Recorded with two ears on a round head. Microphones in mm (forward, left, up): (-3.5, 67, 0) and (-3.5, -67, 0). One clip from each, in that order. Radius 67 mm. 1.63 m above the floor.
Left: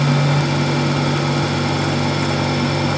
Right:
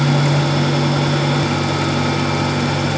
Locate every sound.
Only background noise.